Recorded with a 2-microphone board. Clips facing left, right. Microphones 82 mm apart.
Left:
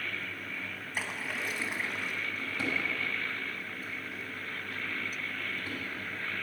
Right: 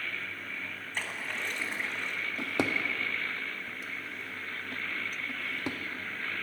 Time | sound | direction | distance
0.9 | a splash | 5° left (ahead or behind) | 0.9 m
2.4 | a drawer | 70° right (ahead or behind) | 0.6 m